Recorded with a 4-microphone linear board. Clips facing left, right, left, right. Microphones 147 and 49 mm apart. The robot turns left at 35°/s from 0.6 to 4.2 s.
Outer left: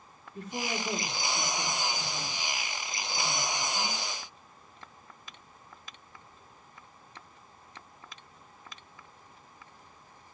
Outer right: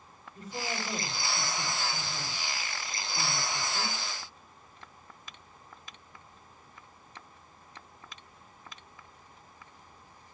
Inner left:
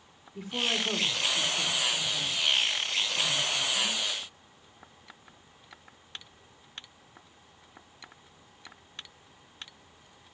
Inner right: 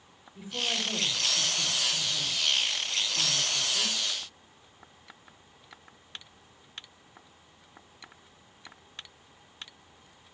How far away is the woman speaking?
About 3.5 m.